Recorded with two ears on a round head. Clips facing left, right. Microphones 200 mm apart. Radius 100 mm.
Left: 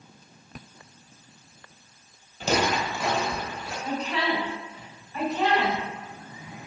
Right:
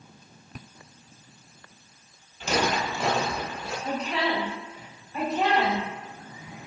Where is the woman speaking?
30° right (ahead or behind), 1.6 m.